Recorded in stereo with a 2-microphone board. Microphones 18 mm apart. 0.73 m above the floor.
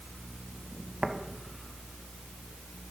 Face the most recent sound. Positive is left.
turn(degrees=-40)  # may be behind; listen again after turning